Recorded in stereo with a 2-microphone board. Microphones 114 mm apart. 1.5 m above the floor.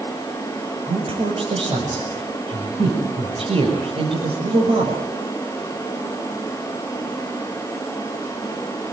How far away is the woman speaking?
About 6 m.